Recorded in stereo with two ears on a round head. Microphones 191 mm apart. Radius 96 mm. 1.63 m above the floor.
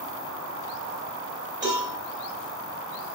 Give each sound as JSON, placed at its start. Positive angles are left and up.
{"t": 1.6, "sound": "a cowbell", "side_deg": -35, "distance_m": 3.0}